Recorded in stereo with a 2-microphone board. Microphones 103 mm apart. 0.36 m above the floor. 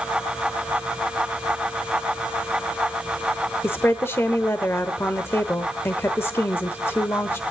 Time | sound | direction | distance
3.6 | a woman speaking | 25° left (ahead or behind) | 1.0 m